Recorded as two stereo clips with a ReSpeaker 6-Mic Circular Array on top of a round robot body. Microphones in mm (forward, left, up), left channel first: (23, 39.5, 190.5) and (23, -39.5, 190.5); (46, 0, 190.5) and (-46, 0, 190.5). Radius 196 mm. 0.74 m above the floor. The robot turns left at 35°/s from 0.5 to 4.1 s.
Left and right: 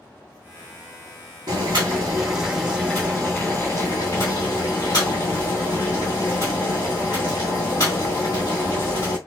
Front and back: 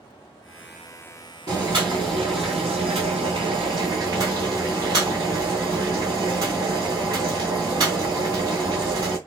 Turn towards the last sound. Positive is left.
turn(degrees=140)